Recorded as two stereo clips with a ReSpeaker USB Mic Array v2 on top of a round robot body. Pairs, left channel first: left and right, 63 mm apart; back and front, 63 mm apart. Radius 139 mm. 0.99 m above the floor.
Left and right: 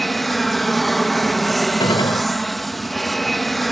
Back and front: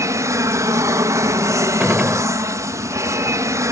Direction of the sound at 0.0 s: 5° left.